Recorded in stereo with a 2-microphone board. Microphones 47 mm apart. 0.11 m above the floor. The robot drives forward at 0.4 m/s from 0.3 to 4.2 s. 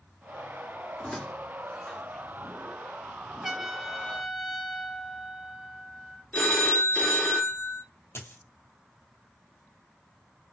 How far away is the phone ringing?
About 0.7 m.